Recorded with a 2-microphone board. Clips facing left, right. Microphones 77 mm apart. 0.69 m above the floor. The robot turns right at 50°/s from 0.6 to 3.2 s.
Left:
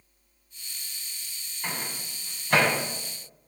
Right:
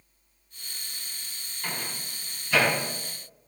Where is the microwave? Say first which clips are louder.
Left 1 dB; 15° left (ahead or behind), 4.5 m; by 2.7 s 70° left (ahead or behind), 4.5 m.